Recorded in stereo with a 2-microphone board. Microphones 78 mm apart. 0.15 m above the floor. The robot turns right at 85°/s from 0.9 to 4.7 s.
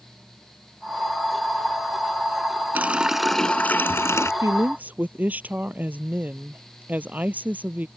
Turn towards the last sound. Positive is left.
turn(degrees=-20)  # may be behind; listen again after turning